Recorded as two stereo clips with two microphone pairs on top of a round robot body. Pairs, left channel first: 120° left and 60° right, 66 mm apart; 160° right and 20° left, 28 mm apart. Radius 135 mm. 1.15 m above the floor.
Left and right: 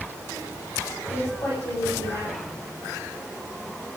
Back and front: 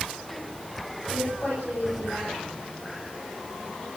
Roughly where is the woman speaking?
Behind left.